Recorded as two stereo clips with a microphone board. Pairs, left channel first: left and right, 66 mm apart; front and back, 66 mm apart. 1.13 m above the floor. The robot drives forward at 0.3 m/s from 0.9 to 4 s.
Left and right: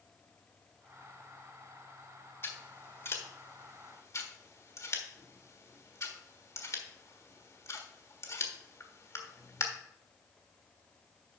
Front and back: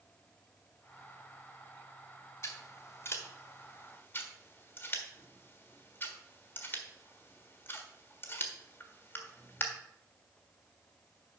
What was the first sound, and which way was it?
Scissors, 40° left.